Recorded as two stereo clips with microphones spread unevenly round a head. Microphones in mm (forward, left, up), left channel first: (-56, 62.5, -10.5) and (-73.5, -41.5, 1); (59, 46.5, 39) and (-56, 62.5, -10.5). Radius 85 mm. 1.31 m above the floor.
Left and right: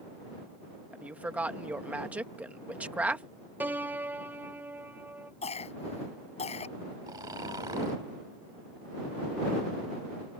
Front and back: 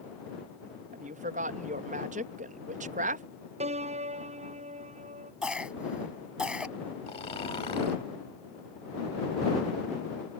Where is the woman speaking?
175° right.